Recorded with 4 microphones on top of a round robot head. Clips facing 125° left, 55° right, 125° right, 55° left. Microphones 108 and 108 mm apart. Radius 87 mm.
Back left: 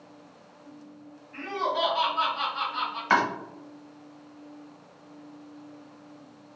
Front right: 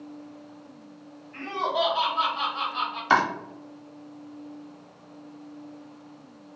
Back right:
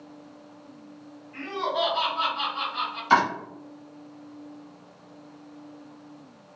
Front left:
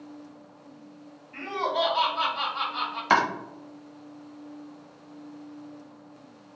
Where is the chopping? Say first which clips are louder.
Front right 2 dB, back right 2 dB; 15° left, 0.6 m.